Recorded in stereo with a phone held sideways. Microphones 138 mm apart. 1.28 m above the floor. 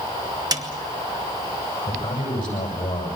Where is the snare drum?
25° right (ahead or behind), 2.5 m.